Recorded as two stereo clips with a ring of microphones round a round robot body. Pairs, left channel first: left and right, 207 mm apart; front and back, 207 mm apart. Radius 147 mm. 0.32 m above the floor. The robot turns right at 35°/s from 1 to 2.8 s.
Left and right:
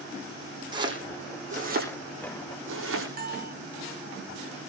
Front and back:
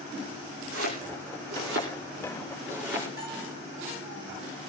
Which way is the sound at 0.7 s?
160° right.